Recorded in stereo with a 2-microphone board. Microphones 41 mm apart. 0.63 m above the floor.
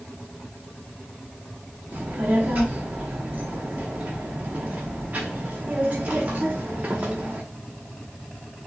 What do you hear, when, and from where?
1.9 s a child speaking: 45° right (ahead or behind), 0.9 m